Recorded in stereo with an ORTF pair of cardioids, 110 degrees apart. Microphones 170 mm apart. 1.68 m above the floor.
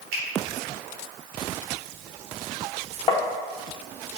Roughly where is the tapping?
Ahead left.